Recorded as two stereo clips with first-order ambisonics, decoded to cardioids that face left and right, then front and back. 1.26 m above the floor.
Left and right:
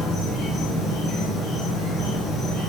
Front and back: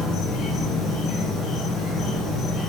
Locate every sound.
0.0 s an insect: 40° left, 0.7 m